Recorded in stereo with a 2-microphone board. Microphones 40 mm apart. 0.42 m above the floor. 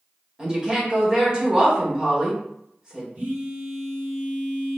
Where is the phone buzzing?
30° right (ahead or behind), 1.5 m.